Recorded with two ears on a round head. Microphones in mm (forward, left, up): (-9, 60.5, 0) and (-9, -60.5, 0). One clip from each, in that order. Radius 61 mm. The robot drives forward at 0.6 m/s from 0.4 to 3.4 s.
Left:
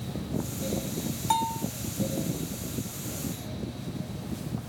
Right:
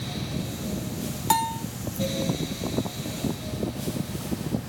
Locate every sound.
1.3 s a bell: 30° right (ahead or behind); by 1.6 s 35° right (ahead or behind)